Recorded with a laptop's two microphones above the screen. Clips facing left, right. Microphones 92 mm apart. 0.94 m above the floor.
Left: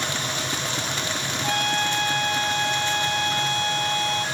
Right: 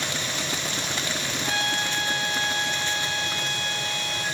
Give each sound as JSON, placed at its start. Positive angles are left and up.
{"t": 0.0, "sound": "a machine running", "side_deg": 45, "distance_m": 9.5}
{"t": 1.4, "sound": "a trumpet", "side_deg": 55, "distance_m": 1.9}